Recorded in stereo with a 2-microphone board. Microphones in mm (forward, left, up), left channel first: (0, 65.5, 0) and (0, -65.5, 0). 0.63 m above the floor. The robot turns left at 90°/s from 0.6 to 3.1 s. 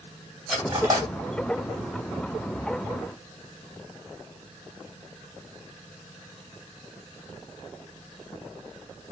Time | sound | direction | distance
0.5 | cutlery clinking | 5° right (ahead or behind) | 1.6 m